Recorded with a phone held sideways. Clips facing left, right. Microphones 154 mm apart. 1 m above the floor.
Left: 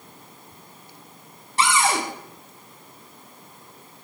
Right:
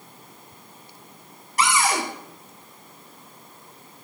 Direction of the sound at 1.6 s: 30° left (ahead or behind).